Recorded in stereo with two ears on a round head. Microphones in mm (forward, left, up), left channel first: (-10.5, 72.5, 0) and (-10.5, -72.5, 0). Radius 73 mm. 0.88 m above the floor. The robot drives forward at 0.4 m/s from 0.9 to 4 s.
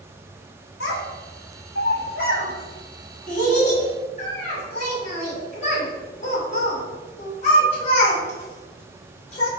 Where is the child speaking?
70° left (ahead or behind), 1.2 m; by 9.5 s 45° left (ahead or behind), 1.6 m.